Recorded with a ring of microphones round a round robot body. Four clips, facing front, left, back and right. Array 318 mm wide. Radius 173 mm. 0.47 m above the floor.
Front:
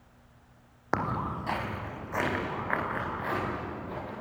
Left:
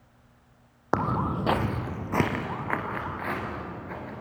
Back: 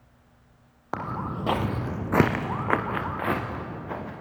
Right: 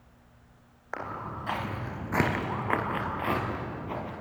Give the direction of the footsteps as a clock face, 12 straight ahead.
9 o'clock.